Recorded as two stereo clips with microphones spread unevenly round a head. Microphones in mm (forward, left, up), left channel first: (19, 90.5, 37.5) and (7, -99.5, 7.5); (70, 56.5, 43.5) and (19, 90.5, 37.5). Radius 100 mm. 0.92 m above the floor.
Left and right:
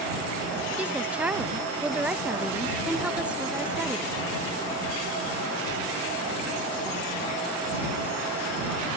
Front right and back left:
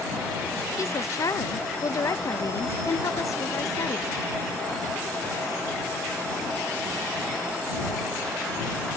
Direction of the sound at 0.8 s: 20° right.